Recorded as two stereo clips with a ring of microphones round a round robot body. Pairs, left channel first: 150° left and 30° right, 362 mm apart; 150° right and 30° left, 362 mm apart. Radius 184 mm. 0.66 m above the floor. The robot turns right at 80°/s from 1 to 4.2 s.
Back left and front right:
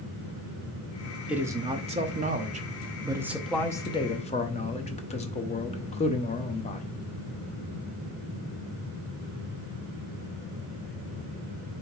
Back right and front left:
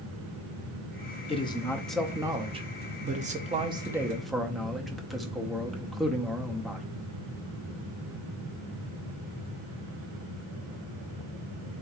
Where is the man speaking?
110° right, 0.6 m; by 6.9 s 120° left, 0.6 m.